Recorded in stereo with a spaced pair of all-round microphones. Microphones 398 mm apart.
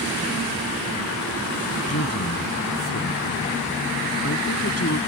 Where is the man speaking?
35° left (ahead or behind).